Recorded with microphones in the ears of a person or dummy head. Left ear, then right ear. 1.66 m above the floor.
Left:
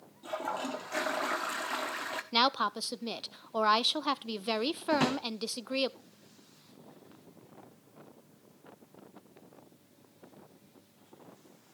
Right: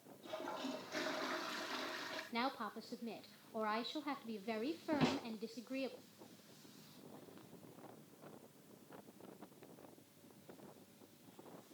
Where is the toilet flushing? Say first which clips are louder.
Left 10 dB; 40° left (ahead or behind), 0.7 m.